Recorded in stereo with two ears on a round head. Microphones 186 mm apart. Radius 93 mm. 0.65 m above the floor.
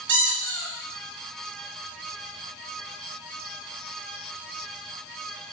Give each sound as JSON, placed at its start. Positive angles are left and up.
{"t": 0.1, "sound": "a squeak", "side_deg": -60, "distance_m": 1.8}